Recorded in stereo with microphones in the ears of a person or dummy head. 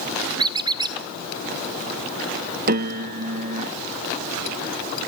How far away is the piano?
About 0.8 m.